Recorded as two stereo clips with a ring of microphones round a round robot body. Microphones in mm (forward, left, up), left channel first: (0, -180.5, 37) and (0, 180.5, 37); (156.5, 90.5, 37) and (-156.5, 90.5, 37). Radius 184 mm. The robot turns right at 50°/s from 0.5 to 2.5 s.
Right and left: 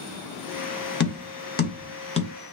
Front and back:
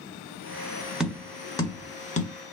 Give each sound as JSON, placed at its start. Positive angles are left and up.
{"t": 1.0, "sound": "tapping", "azimuth_deg": -95, "distance_m": 0.6}